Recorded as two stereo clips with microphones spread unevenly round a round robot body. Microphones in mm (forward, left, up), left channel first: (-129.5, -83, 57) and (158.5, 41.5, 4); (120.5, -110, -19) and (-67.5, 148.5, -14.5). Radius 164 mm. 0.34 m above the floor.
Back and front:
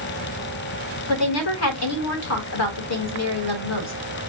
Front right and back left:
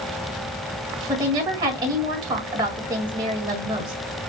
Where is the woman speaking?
160° right, 1.6 m.